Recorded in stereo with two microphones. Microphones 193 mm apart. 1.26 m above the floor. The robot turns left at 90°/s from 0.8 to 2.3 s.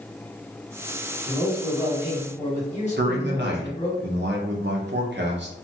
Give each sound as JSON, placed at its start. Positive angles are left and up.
{"t": 1.3, "sound": "a man speaking", "azimuth_deg": -125, "distance_m": 1.4}
{"t": 3.0, "sound": "a man speaking", "side_deg": -65, "distance_m": 0.8}